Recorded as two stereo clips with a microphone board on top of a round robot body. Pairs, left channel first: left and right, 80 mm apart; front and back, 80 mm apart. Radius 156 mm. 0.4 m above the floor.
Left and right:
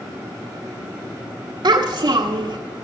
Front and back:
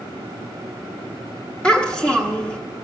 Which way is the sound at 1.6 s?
80° right.